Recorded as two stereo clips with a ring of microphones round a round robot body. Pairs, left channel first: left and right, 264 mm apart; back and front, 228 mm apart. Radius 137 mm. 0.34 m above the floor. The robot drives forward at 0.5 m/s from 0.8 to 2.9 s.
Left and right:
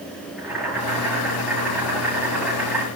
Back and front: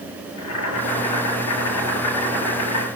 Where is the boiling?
Straight behind, 8.5 m.